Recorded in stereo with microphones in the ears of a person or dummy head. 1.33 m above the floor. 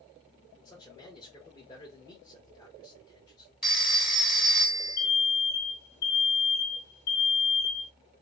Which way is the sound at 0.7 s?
25° left (ahead or behind).